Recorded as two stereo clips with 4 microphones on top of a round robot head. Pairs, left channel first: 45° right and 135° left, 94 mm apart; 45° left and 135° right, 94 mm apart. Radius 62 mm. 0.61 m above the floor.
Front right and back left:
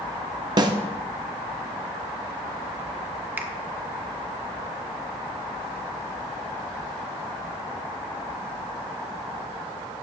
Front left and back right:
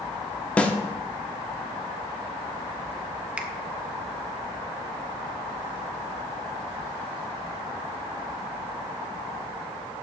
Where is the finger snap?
170° left, 1.1 m.